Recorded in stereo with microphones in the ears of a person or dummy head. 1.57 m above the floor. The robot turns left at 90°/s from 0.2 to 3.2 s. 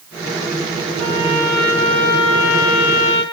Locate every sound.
1.0 s a trumpet: 130° right, 5.5 m; by 3.2 s 30° left, 5.5 m